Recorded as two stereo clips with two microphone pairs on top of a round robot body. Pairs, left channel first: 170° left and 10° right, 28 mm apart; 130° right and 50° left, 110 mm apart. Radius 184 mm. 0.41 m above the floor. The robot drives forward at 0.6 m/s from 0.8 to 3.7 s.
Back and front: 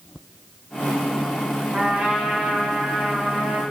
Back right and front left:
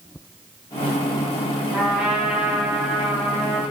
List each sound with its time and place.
1.7 s a trumpet: 30° right, 3 m; by 3.6 s 50° right, 2 m